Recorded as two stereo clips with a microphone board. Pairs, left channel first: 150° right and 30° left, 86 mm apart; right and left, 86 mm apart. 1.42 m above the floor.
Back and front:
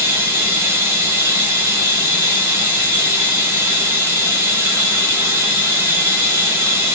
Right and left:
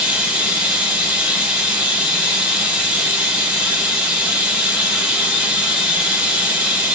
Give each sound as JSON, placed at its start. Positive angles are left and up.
{"t": 0.0, "sound": "running water", "azimuth_deg": 25, "distance_m": 1.2}